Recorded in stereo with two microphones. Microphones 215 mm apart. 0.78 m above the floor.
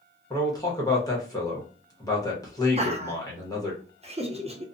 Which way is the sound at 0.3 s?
15° left (ahead or behind).